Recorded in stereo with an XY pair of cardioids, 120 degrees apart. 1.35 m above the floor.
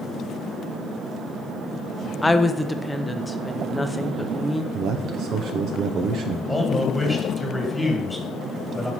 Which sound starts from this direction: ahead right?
A man speaking, at 4.7 s.